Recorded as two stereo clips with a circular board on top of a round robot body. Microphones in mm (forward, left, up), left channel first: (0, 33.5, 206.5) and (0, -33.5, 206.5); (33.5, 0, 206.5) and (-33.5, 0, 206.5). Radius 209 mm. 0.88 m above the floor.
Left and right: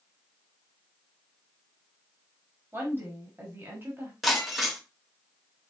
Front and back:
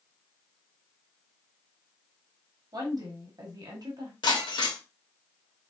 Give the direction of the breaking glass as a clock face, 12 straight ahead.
12 o'clock.